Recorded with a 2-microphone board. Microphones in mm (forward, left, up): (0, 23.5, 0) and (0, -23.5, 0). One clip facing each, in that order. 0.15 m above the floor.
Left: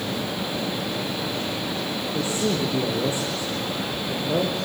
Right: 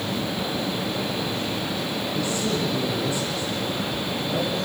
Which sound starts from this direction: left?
A man speaking, at 2.1 s.